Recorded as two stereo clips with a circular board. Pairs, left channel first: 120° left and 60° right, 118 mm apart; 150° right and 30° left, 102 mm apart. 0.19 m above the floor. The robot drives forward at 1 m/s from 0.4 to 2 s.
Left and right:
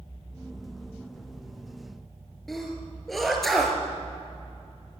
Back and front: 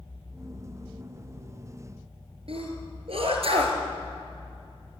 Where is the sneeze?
30° left, 4 m.